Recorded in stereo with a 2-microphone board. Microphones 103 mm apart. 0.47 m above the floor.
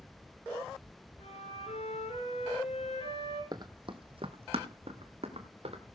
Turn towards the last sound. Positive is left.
turn(degrees=-80)